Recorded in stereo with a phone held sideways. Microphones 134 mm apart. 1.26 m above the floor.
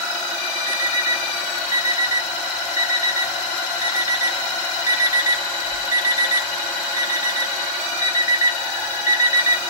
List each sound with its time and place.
0.7 s an alarm clock: 25° right (ahead or behind), 1.0 m